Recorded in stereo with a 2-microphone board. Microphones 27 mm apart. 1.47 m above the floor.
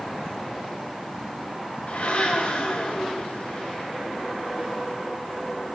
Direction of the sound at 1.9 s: 70° left (ahead or behind).